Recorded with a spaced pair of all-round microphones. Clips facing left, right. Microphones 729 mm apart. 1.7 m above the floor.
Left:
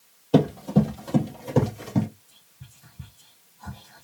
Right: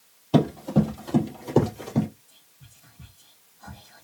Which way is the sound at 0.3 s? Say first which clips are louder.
Left 1 dB; centre (ahead or behind).